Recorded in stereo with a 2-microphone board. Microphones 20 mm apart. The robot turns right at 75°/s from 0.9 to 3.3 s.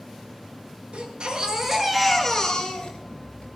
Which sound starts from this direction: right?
A baby crying, at 0.9 s.